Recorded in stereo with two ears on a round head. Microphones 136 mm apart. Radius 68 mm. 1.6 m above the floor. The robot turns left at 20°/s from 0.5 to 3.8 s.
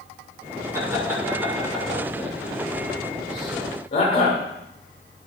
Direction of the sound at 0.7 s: 20° right (ahead or behind).